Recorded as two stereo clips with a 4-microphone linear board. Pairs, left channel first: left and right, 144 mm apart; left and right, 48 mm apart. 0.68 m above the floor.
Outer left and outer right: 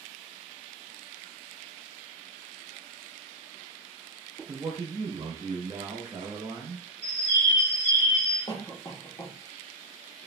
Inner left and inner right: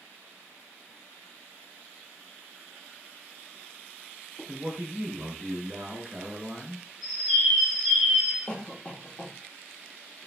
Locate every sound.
4.5 s a man speaking: 25° right (ahead or behind), 0.6 m
7.0 s a bird: 10° right (ahead or behind), 1.3 m
8.5 s a cough: 25° left (ahead or behind), 0.9 m